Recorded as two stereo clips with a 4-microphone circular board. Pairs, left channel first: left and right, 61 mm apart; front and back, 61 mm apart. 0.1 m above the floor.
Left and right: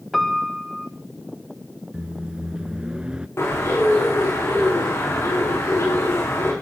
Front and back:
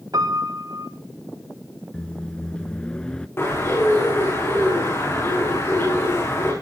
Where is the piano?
Straight behind, 2 m.